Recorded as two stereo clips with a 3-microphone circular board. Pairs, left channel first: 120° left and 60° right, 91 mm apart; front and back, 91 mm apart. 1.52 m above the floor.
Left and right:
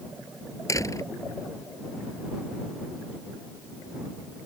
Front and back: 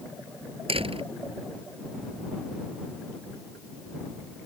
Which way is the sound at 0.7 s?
175° left.